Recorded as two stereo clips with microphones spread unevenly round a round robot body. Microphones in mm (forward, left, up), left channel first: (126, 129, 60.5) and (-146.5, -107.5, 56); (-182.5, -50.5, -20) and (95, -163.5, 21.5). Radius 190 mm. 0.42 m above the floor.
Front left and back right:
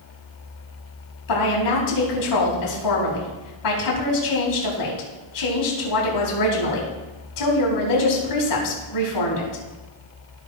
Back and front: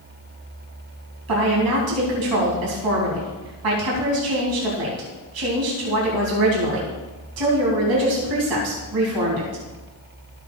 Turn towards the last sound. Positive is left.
turn(degrees=10)